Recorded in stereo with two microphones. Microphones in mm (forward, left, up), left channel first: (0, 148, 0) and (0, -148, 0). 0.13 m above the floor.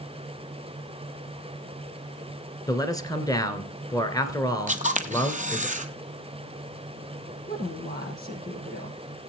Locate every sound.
2.7 s a man speaking: 10° left (ahead or behind), 1.8 m
4.7 s a camera shutter: 25° right (ahead or behind), 0.9 m
7.5 s a woman speaking: 30° left (ahead or behind), 4 m